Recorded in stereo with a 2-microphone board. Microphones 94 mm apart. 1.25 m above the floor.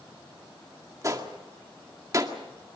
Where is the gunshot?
35° right (ahead or behind), 2.0 m.